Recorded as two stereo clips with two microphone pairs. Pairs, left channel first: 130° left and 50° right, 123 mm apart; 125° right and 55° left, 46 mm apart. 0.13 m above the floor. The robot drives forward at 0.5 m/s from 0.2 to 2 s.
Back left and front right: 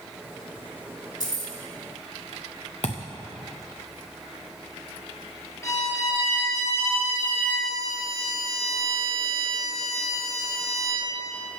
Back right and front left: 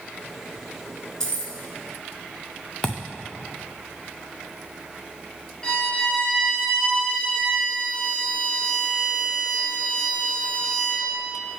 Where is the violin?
175° left, 2.0 m.